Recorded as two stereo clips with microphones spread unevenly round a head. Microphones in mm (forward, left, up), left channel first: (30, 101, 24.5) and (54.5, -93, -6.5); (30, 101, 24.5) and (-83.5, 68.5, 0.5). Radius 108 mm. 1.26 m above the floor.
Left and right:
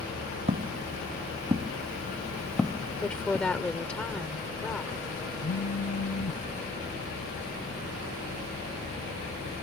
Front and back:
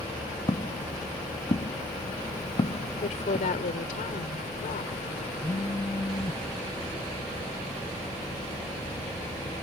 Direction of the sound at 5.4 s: 75° left.